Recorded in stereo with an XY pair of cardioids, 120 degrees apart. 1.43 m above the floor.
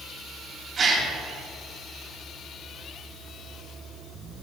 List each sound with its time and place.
0.8 s a gasp: 40° right, 3 m